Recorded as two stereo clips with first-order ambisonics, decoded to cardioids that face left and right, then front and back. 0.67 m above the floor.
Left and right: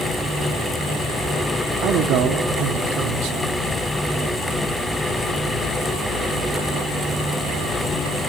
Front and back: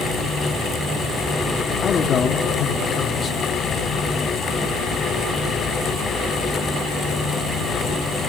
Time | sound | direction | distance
1.8 | a man speaking | 65° right | 1.4 m